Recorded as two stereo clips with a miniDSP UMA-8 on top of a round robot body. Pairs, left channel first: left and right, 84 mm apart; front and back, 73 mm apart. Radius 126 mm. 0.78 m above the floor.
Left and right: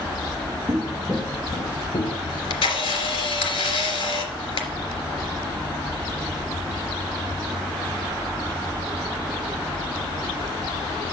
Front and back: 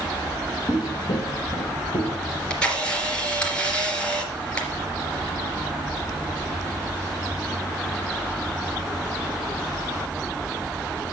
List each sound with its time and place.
0.7 s footsteps: 25° right, 1.0 m; by 2.2 s 55° left, 1.4 m
2.3 s a camera shutter: 75° left, 3 m